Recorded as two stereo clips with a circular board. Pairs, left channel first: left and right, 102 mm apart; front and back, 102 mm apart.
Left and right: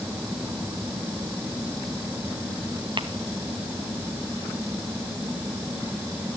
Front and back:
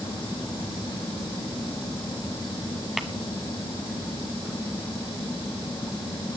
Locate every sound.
3.0 s tapping: 95° right, 0.8 m